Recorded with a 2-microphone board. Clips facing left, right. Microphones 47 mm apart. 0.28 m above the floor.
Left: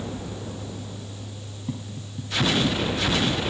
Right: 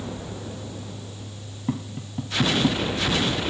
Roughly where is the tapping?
Right.